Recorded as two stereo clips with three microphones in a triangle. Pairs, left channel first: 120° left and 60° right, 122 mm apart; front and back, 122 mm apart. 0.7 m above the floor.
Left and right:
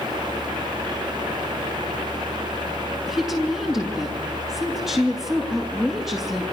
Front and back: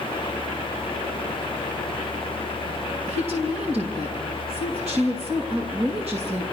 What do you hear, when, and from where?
3.1 s a woman speaking: 145° right, 8.5 m